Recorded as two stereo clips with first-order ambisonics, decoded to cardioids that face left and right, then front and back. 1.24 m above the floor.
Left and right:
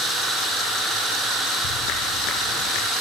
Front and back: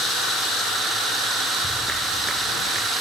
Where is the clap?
100° left.